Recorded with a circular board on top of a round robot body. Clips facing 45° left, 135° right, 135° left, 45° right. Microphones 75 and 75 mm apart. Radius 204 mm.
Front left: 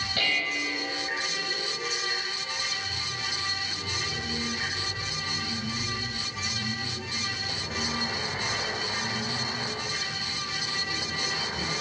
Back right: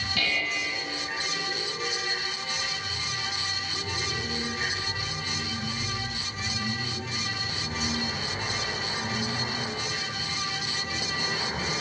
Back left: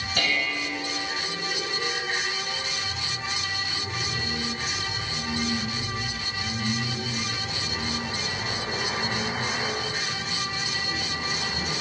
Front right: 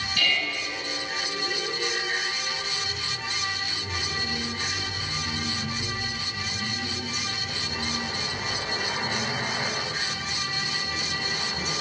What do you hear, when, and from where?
0.2 s dishes clattering: 95° left, 4 m